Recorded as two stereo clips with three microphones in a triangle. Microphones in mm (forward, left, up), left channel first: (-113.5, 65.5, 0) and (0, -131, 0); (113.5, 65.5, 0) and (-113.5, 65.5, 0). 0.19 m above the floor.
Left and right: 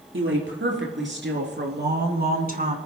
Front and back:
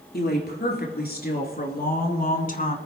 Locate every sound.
0.1 s a woman speaking: 40° right, 3.5 m; by 2.8 s 30° right, 1.7 m